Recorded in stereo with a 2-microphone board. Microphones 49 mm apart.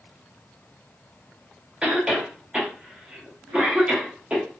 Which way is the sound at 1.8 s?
20° right (ahead or behind).